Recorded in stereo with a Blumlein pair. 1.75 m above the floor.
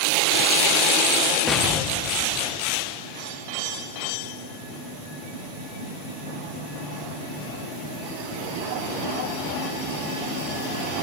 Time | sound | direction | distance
1.5 | an explosion | 5° left | 0.7 m